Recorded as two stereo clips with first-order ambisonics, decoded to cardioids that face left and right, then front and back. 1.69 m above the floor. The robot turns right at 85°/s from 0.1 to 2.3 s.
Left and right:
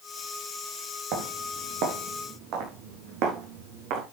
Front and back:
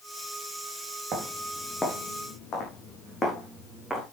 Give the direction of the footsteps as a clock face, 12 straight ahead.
4 o'clock.